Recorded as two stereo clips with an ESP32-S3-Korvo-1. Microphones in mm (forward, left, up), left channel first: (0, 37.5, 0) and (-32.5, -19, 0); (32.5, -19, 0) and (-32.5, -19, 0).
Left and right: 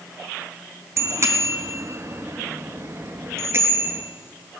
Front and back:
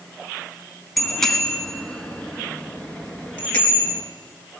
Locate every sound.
1.0 s a bicycle bell: 85° right, 2 m; by 4.0 s 65° right, 4 m